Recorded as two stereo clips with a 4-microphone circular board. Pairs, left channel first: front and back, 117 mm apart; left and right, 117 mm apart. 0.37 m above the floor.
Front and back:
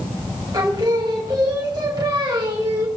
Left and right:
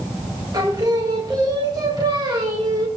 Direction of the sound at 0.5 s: 135° right.